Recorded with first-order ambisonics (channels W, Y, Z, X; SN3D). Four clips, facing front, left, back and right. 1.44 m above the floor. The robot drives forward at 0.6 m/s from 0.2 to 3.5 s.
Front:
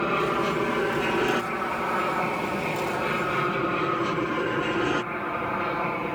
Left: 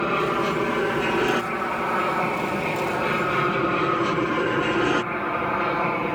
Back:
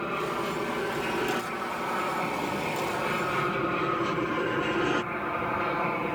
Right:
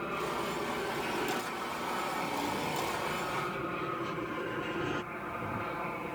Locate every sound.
0.0 s an aircraft: 65° left; by 6.2 s 85° left